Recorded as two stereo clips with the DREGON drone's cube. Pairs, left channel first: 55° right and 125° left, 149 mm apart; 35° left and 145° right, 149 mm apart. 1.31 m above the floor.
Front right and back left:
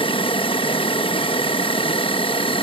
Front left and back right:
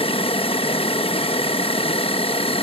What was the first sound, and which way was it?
An insect, 10° right.